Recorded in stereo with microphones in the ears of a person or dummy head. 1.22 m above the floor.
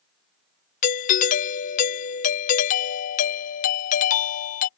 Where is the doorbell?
40° left (ahead or behind).